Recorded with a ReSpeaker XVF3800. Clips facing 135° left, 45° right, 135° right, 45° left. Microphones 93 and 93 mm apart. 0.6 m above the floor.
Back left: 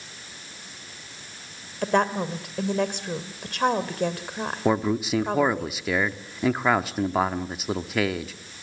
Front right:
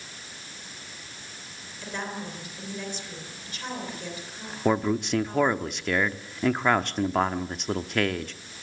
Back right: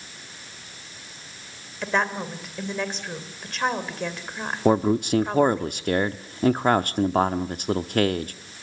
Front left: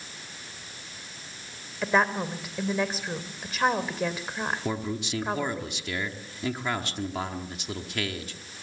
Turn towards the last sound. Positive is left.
turn(degrees=-140)